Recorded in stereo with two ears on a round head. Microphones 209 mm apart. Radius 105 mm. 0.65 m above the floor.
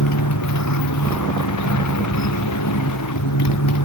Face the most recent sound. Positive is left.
turn(degrees=90)